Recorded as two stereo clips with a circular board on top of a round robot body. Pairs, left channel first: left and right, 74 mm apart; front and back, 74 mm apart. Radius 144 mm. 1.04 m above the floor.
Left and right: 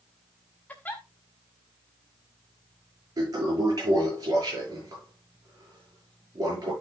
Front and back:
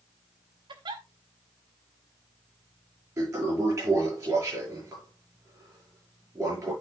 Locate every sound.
0.7 s a giggle: 160° left, 0.7 m
3.2 s a toilet flushing: 130° right, 6 m